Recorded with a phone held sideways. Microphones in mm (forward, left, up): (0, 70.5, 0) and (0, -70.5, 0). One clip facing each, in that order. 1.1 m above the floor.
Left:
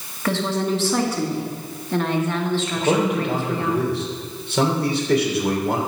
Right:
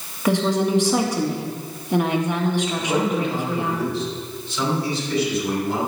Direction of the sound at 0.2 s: 15° right (ahead or behind).